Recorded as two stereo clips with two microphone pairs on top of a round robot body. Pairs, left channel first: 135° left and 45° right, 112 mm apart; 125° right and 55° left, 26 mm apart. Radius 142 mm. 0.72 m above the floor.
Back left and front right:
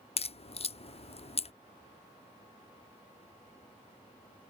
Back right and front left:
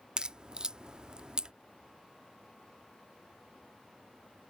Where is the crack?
115° left.